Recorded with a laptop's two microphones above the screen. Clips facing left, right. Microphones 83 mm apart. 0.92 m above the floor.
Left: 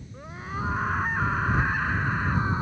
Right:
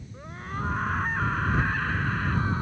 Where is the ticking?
No ticking in this recording.